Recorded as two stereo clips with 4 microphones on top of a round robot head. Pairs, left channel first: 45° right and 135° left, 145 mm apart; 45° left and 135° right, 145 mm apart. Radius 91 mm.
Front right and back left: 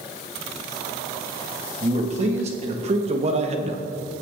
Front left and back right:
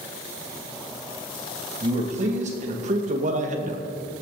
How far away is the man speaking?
About 3 m.